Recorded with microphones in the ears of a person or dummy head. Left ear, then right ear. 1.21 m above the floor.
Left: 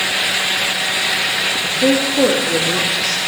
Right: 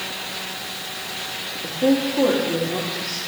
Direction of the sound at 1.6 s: 70° left (ahead or behind).